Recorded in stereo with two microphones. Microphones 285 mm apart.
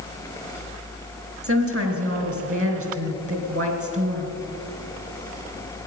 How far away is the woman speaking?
About 2.5 m.